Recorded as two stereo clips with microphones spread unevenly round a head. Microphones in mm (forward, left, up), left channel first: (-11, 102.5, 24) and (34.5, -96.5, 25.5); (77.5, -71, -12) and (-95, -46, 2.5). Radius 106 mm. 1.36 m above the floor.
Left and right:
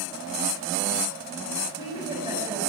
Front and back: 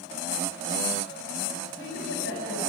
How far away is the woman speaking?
About 6.5 m.